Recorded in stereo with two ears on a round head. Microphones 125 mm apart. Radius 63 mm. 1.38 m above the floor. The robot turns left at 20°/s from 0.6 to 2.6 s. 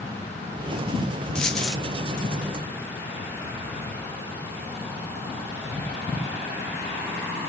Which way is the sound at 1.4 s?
5° left (ahead or behind).